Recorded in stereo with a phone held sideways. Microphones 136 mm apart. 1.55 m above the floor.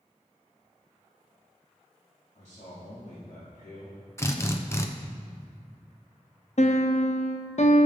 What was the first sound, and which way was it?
A man speaking, 65° left (ahead or behind).